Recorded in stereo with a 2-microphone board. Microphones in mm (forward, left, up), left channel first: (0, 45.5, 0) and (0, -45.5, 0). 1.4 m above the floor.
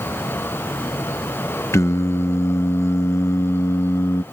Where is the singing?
30° left (ahead or behind).